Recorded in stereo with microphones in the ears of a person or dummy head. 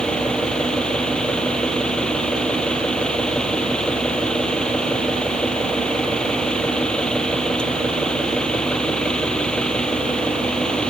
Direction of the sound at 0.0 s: 5° left (ahead or behind).